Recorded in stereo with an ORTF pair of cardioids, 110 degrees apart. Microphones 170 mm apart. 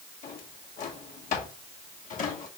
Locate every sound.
0.2 s a drawer: 55° left, 1.7 m